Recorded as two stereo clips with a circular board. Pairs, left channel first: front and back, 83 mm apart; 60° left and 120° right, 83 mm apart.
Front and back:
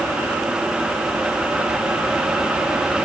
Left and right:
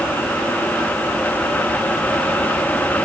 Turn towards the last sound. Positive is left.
No sound to turn to.